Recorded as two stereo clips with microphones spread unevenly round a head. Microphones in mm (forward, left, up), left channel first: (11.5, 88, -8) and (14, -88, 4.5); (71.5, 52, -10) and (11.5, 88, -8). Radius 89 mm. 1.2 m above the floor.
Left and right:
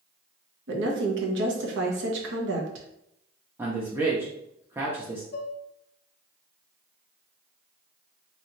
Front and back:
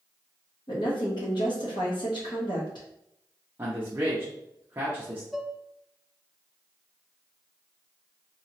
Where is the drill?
No drill in this recording.